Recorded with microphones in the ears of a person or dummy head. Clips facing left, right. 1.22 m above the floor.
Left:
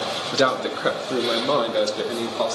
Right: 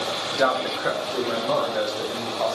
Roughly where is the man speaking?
Left.